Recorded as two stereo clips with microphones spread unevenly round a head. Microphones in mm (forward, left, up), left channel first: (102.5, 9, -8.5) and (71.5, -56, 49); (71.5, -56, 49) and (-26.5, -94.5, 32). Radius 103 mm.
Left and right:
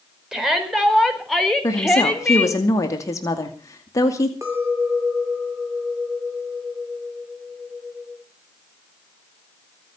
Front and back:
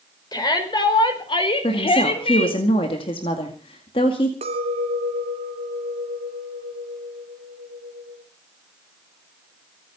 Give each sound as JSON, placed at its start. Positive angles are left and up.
{"t": 0.3, "sound": "a shout", "azimuth_deg": -25, "distance_m": 5.0}
{"t": 1.6, "sound": "a woman speaking", "azimuth_deg": 75, "distance_m": 2.0}
{"t": 4.4, "sound": "a clink", "azimuth_deg": 170, "distance_m": 2.5}